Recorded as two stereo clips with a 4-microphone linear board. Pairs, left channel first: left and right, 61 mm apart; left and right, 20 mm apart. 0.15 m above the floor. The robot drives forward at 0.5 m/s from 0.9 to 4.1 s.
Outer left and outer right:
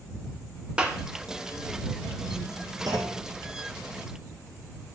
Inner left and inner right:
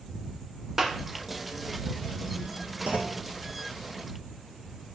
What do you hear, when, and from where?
0.8 s a clap: 15° right (ahead or behind), 1.1 m
2.9 s a clunk: 80° right, 1.8 m; by 3.2 s 75° right (ahead or behind), 1.8 m